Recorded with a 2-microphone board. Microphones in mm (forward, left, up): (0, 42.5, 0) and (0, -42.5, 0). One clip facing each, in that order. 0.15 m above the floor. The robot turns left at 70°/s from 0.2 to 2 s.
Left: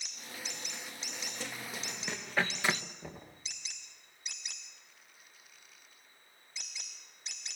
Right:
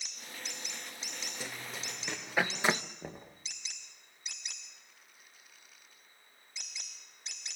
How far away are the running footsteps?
About 2 m.